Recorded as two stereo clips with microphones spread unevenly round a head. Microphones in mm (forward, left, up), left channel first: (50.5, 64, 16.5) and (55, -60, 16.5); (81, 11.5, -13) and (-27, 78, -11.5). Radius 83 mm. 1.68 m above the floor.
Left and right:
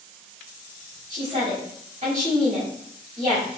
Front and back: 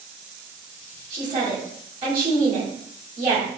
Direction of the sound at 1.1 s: 150° right.